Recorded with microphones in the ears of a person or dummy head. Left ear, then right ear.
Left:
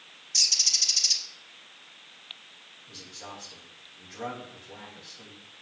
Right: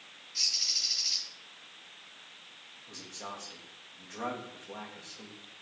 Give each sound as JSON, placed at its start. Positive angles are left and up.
{"t": 0.3, "sound": "a bird", "side_deg": 50, "distance_m": 2.0}
{"t": 2.9, "sound": "a man speaking", "side_deg": -30, "distance_m": 3.0}